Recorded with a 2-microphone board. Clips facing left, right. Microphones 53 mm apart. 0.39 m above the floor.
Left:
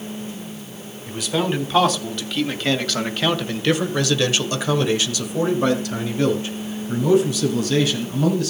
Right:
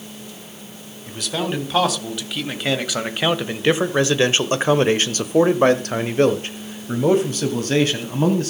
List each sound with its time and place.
1.1 s a man speaking: centre (ahead or behind), 2.5 m; by 8.5 s 40° right (ahead or behind), 2.5 m